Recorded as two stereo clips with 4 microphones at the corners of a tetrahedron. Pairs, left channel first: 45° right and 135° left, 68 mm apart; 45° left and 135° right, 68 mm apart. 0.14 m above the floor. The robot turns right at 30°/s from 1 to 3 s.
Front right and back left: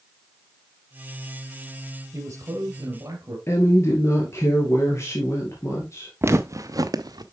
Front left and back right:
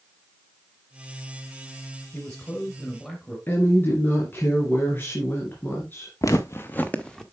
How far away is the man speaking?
About 2 m.